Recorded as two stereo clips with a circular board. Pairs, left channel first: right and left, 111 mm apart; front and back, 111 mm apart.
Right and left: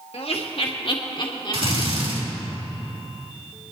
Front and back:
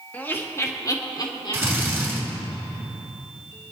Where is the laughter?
75° right, 1.7 m; by 2.5 s 35° right, 3 m.